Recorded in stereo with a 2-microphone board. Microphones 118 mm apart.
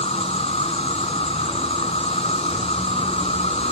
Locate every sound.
0.0 s an insect: 60° left (ahead or behind)